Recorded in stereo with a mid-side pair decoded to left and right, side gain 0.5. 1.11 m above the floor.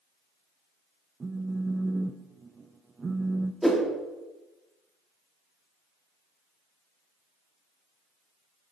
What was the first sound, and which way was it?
A phone buzzing, 30° right.